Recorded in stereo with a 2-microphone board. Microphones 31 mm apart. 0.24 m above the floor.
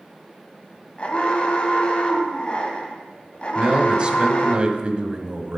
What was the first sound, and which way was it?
An alarm, 35° left (ahead or behind).